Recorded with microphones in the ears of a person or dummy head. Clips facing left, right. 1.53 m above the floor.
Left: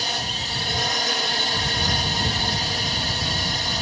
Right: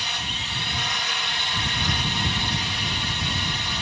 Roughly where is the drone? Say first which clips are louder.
Left 5 dB; left.